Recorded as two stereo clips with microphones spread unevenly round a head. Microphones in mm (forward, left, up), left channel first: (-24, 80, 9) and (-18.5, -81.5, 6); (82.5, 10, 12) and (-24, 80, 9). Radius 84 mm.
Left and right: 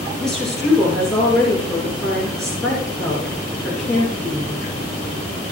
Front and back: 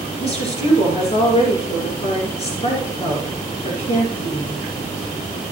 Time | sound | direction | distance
0.2 | a woman speaking | 5° left | 5.5 m